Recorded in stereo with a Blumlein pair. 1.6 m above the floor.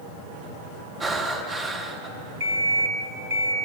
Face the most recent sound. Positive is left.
turn(degrees=-50)